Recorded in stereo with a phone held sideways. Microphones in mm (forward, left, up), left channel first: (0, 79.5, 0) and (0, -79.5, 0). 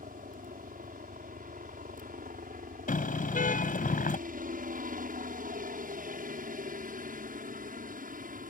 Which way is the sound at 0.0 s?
60° right (ahead or behind).